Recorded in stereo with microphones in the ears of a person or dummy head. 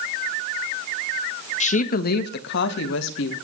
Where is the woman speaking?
40° left (ahead or behind), 1.2 m; by 3.4 s 80° left, 2.5 m.